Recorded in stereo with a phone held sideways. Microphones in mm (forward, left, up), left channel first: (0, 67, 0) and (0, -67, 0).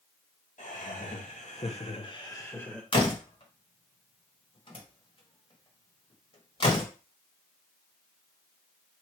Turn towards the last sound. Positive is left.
turn(degrees=45)  # may be behind; listen again after turning